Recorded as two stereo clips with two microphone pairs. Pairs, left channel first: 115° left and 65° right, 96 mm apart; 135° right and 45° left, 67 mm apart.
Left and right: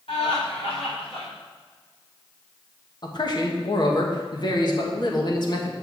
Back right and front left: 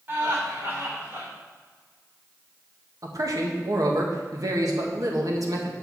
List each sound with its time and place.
0.1 s laughter: 105° left, 4 m
3.0 s a man speaking: 75° left, 1.7 m